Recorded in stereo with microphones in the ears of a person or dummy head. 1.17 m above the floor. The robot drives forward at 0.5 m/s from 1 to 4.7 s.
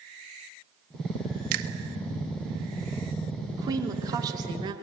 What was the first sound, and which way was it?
A finger snap, 45° right (ahead or behind).